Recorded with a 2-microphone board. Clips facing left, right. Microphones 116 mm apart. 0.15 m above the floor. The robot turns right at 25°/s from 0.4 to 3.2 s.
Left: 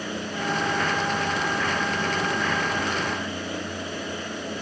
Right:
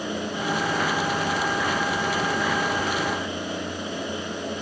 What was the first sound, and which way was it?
Only background noise.